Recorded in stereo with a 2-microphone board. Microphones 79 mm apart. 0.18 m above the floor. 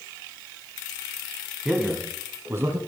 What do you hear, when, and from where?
1.6 s a man speaking: 5° right (ahead or behind), 1.4 m; by 2.8 s 35° right (ahead or behind), 1.5 m